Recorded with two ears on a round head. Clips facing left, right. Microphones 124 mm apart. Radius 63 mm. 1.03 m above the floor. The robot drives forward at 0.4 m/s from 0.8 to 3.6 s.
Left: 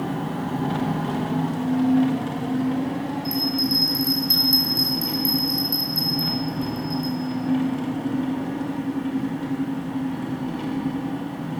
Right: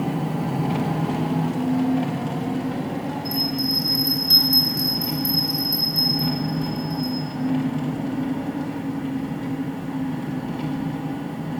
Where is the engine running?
10° right (ahead or behind), 0.8 m; by 11.6 s 5° right (ahead or behind), 1.9 m.